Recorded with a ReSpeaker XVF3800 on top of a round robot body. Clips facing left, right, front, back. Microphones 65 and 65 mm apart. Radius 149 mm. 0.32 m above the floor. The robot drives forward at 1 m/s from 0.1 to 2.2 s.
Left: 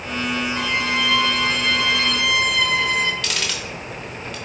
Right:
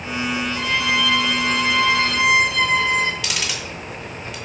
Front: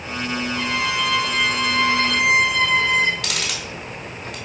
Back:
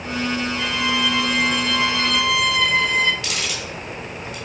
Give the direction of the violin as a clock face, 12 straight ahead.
1 o'clock.